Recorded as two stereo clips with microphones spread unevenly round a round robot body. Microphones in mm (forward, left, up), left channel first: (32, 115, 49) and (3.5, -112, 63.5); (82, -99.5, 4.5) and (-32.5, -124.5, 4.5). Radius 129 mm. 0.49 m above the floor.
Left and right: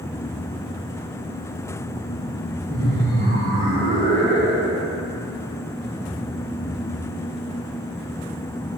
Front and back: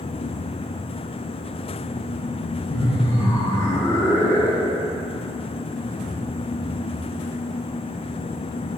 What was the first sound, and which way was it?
Laughter, 45° right.